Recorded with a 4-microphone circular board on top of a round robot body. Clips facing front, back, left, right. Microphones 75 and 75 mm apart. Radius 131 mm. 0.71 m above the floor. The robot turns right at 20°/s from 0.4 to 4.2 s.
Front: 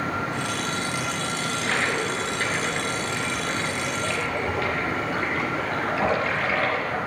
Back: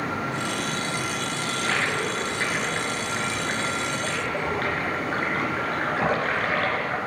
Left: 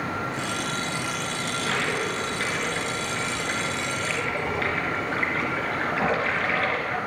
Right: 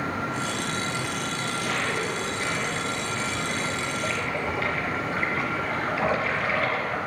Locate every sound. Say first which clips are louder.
1.4 s a toilet flushing: even, left 2 dB; 85° left, 3.5 m; by 7.0 s 140° left, 3.5 m